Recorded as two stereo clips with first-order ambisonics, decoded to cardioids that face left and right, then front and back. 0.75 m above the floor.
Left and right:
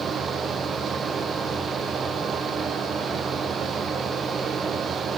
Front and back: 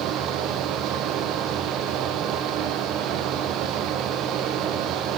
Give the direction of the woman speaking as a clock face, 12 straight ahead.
I don't hear a woman speaking.